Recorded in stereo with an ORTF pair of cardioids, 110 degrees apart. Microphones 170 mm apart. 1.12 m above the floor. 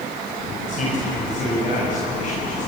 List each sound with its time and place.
0.7 s a man speaking: 50° left, 4.5 m; by 2.7 s 45° left, 7.5 m